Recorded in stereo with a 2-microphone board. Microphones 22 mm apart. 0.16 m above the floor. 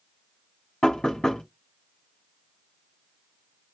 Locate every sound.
0.8 s knocking: 40° left (ahead or behind), 1.4 m